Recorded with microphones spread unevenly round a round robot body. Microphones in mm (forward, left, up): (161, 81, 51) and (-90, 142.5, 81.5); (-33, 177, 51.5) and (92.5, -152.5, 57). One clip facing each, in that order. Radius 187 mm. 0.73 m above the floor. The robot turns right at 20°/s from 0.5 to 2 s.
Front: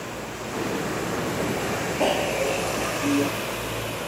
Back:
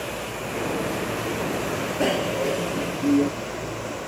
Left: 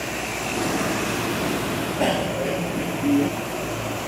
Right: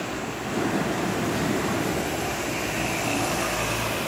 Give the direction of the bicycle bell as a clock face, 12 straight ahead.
9 o'clock.